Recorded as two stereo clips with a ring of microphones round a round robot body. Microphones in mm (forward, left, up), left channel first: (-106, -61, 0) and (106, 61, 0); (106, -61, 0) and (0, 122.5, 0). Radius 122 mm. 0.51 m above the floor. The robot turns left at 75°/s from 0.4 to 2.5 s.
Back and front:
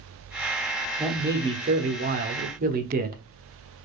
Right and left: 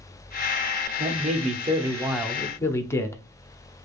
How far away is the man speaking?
About 0.8 m.